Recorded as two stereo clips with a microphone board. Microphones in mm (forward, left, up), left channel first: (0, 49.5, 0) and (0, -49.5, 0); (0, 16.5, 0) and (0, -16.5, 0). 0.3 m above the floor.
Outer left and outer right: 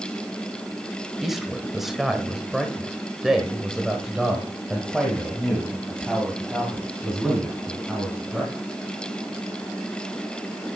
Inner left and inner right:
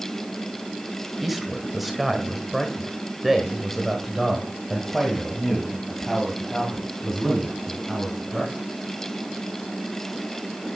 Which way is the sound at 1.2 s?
Centre (ahead or behind).